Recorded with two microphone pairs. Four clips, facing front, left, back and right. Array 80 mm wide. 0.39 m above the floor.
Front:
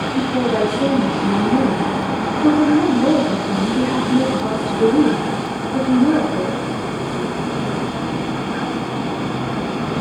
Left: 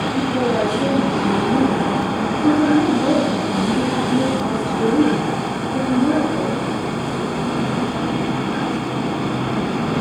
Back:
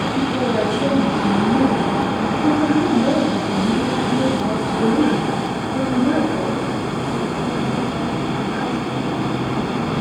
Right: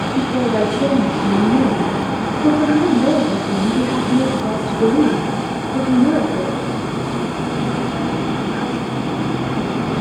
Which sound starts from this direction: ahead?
A woman speaking, at 0.1 s.